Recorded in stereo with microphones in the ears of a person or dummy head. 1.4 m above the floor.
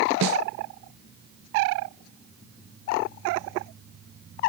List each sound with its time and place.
0.2 s a snare drum: 65° right (ahead or behind), 0.9 m